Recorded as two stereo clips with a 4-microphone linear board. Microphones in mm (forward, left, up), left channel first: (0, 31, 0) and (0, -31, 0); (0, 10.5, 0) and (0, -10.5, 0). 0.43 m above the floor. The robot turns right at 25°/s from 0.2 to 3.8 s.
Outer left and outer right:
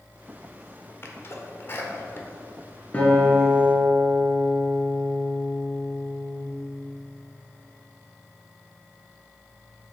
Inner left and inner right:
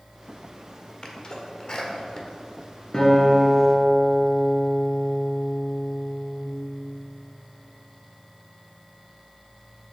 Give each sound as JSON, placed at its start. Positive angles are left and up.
{"t": 1.0, "sound": "a sneeze", "side_deg": 40, "distance_m": 1.2}
{"t": 2.9, "sound": "a guitar", "side_deg": 25, "distance_m": 2.0}